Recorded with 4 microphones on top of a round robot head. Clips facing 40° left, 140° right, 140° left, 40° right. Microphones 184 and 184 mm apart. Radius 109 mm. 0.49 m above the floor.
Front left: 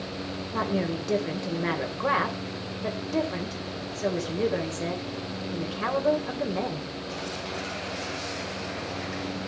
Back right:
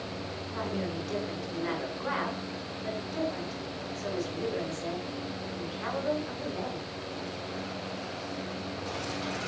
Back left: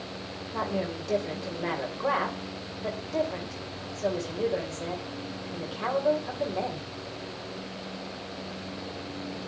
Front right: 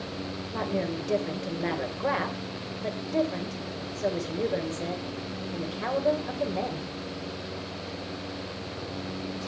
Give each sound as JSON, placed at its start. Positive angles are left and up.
{"t": 0.5, "sound": "a woman speaking", "azimuth_deg": 40, "distance_m": 2.5}